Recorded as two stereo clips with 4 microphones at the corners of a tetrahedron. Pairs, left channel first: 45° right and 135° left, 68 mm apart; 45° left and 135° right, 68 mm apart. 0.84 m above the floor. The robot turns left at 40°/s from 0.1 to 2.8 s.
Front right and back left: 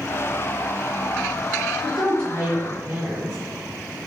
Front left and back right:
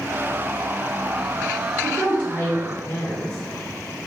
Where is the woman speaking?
125° left, 1.5 m; by 3.4 s 90° left, 1.5 m.